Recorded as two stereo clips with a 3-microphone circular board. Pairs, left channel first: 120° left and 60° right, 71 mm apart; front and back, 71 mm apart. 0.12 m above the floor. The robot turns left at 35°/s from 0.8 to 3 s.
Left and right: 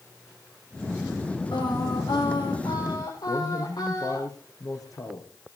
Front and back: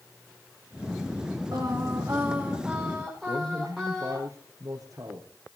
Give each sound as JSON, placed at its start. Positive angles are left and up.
{"t": 1.5, "sound": "singing", "azimuth_deg": 140, "distance_m": 6.5}
{"t": 3.3, "sound": "a man speaking", "azimuth_deg": 150, "distance_m": 4.0}